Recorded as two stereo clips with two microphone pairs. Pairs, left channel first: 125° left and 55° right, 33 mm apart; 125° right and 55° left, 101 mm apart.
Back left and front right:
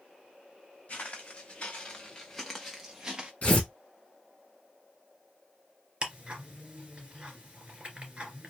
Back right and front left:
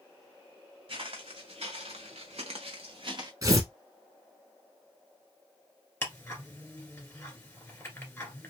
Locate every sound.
0.9 s footsteps: 80° left, 1.3 m; by 3.3 s 15° left, 0.8 m
3.4 s tearing paper: 95° left, 1.3 m
6.0 s ticking: 75° right, 1.7 m